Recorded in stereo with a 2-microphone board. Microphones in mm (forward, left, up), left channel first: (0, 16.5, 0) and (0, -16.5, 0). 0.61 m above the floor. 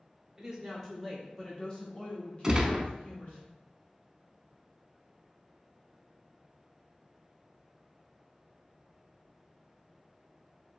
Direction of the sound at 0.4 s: 15° right (ahead or behind).